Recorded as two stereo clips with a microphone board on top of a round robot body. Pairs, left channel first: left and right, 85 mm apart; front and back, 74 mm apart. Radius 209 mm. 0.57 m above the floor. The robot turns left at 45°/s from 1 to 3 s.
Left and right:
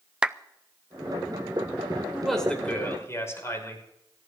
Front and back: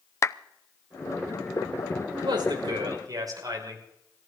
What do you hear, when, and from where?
0.2 s a clap: 15° right, 0.7 m
2.1 s a man speaking: 175° right, 5 m; by 3.9 s 145° left, 5 m